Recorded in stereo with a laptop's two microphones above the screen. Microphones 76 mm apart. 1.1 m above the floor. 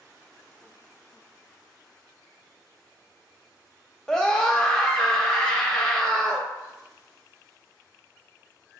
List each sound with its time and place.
4.1 s a scream: 5° left (ahead or behind), 1.5 m